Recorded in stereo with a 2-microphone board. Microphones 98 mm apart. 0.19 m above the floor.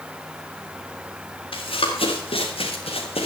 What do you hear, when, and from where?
1.5 s running footsteps: 70° left (ahead or behind), 4 m; by 3.2 s 85° left, 3.5 m